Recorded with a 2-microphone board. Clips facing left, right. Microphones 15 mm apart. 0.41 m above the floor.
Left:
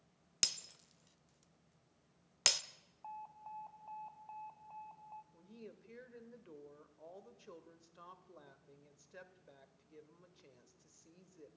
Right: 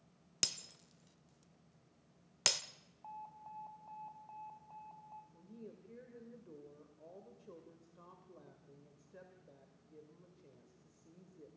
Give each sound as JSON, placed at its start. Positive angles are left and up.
{"t": 0.4, "sound": "breaking glass", "side_deg": 0, "distance_m": 0.6}
{"t": 3.0, "sound": "an alarm", "side_deg": 20, "distance_m": 0.8}
{"t": 5.3, "sound": "a woman speaking", "side_deg": 45, "distance_m": 1.6}